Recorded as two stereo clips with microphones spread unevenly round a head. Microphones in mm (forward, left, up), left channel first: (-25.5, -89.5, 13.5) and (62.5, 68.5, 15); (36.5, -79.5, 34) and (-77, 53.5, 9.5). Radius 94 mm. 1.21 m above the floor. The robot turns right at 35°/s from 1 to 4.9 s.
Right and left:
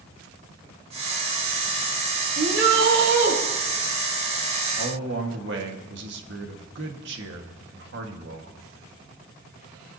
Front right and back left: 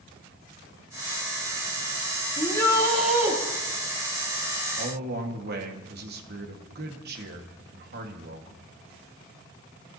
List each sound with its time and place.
2.4 s a shout: 20° left, 2.0 m; by 3.4 s 55° left, 2.0 m
4.8 s a man speaking: 90° left, 1.8 m; by 8.6 s 95° left, 1.8 m